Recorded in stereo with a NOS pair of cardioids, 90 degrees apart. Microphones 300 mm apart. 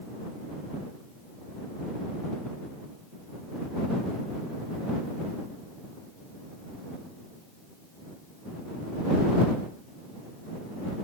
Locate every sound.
Only background noise.